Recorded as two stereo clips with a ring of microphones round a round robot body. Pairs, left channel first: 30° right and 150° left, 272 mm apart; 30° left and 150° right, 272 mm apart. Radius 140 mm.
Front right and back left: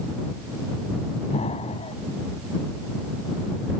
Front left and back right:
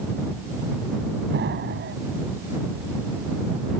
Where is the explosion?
100° right.